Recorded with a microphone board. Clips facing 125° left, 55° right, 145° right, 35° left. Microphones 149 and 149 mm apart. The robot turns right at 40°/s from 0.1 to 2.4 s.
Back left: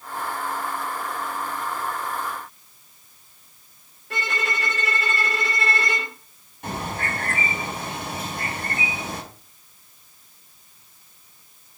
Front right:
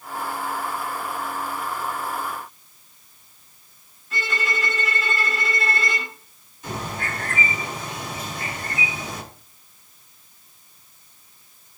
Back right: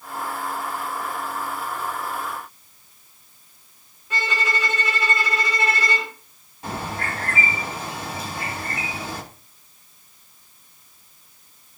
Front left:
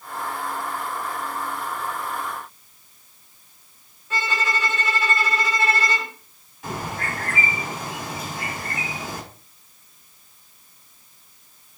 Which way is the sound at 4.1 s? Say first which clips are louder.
Even, even; 140° left.